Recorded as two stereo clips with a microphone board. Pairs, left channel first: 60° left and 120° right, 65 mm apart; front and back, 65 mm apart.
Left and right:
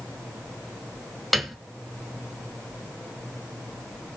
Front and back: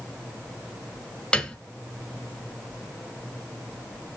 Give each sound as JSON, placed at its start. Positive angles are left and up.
{"t": 1.3, "sound": "a piano", "azimuth_deg": -25, "distance_m": 1.6}